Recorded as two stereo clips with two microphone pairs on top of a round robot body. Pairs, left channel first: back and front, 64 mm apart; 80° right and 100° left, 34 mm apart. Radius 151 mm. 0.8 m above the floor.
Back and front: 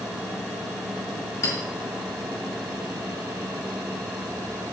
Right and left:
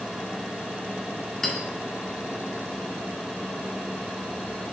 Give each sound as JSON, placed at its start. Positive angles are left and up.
{"t": 1.4, "sound": "a clink", "azimuth_deg": -155, "distance_m": 2.5}